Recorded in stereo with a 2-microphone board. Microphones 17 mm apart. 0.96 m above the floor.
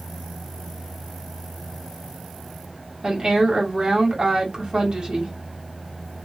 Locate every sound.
3.0 s a woman speaking: 65° right (ahead or behind), 1.7 m